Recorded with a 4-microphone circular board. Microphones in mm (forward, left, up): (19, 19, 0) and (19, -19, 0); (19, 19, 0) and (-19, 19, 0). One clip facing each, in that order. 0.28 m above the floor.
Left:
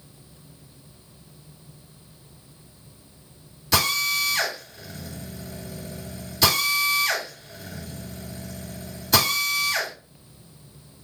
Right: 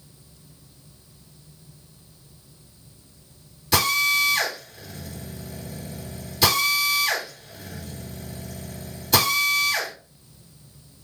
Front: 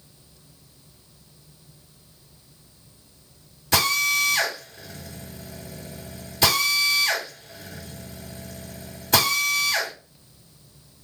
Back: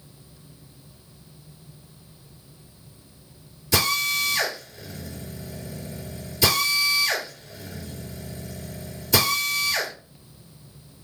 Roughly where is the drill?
Ahead.